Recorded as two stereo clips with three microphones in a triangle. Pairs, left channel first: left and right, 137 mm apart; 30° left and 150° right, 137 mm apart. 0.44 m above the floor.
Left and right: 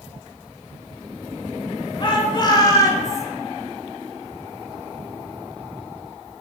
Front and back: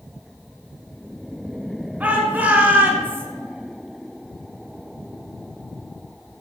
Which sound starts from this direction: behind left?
A shout, at 2.0 s.